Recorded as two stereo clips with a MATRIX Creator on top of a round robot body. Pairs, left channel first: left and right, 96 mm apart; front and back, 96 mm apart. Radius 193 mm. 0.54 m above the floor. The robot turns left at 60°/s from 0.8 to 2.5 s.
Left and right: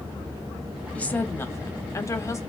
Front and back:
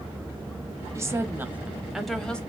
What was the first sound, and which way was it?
A woman speaking, 155° left.